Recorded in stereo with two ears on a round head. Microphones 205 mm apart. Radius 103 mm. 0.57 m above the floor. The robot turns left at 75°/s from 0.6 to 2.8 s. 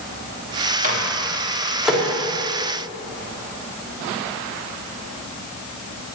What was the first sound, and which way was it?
A microwave, 35° right (ahead or behind).